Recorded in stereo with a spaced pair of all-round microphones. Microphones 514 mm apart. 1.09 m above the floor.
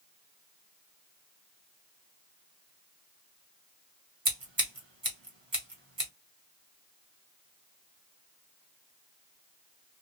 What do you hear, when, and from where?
4.2 s scissors: 55° right (ahead or behind), 1.3 m